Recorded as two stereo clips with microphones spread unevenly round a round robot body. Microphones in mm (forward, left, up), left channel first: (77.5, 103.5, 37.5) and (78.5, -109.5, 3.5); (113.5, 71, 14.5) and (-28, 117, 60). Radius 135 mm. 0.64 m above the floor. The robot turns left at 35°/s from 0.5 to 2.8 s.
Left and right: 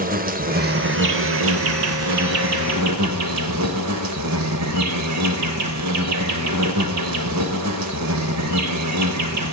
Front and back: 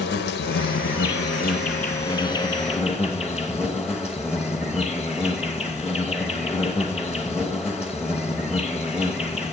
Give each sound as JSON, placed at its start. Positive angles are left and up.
{"t": 0.0, "sound": "an insect", "azimuth_deg": -35, "distance_m": 0.7}